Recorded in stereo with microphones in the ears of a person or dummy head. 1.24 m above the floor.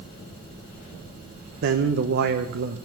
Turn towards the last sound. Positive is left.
turn(degrees=-55)  # may be behind; listen again after turning